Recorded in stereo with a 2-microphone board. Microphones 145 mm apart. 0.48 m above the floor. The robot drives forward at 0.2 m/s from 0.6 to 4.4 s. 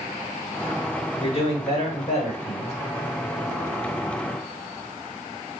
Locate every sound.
1.2 s a man speaking: 50° left (ahead or behind), 1.5 m; by 2.7 s 45° left (ahead or behind), 1.5 m